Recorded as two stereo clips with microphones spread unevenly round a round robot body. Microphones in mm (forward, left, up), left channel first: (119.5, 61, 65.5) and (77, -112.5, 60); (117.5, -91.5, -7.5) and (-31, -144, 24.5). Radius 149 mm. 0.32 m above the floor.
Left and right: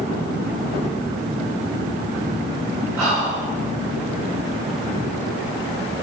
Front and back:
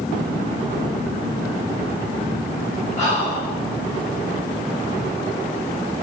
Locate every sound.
3.0 s whispering: 35° right, 1.9 m